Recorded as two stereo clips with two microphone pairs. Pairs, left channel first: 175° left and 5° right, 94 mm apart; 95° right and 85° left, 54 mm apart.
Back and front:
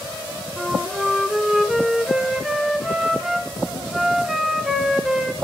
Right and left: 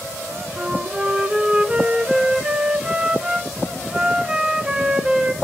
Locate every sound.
0.6 s a flute: 85° left, 0.7 m